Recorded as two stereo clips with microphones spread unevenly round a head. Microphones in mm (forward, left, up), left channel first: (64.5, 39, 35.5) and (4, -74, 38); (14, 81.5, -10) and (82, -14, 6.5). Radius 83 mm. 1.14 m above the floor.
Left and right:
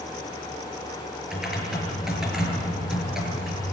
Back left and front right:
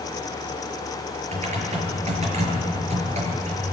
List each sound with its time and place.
1.3 s typing on a keyboard: 35° right, 5.5 m